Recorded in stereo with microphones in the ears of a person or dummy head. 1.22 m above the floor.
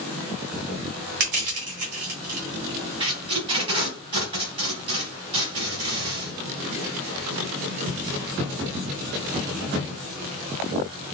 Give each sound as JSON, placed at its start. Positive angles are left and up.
{"t": 1.2, "sound": "crushing", "side_deg": -50, "distance_m": 1.2}
{"t": 3.0, "sound": "tape being pulled", "side_deg": -25, "distance_m": 1.4}